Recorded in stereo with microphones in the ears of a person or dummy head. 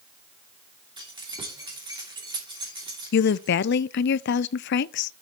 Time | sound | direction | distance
1.0 | keys jangling | 20° right (ahead or behind) | 2.5 m
3.1 | a woman speaking | 55° left (ahead or behind) | 0.5 m